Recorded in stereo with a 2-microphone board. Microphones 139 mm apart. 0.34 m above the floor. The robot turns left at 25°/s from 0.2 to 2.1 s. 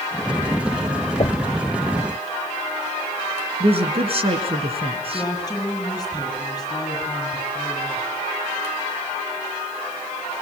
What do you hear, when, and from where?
1.2 s knocking: 45° left (ahead or behind), 0.9 m; by 1.6 s 40° left (ahead or behind), 0.9 m
3.6 s a man speaking: 45° right (ahead or behind), 4 m
5.1 s a woman speaking: 25° left (ahead or behind), 8 m